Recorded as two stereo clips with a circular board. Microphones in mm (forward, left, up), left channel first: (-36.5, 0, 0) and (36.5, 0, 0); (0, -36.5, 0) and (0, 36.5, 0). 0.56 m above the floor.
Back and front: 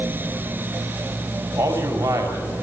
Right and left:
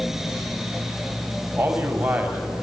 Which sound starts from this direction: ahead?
A man speaking, at 1.6 s.